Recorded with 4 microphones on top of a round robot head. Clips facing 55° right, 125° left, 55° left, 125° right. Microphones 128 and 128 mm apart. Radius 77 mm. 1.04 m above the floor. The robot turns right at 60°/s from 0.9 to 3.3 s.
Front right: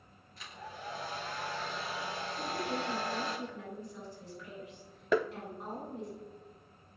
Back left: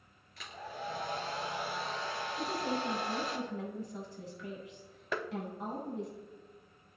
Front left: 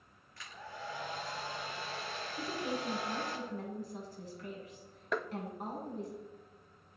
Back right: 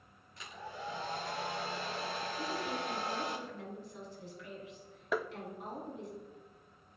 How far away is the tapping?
About 0.7 m.